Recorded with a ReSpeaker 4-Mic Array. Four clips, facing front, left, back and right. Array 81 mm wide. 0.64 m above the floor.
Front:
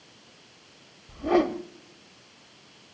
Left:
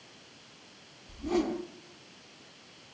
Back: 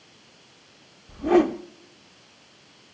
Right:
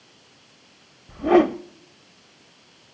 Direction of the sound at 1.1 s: 100° right.